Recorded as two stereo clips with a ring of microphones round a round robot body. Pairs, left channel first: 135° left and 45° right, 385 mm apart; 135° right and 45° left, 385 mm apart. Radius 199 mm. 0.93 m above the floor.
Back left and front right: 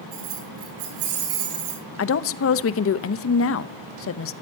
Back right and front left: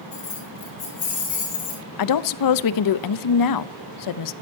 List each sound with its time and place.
0.1 s keys jangling: 60° right, 9.5 m
2.0 s a woman speaking: 170° right, 0.8 m